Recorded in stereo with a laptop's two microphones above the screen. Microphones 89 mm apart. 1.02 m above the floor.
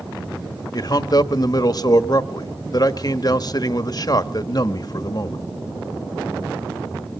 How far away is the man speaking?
About 1.5 m.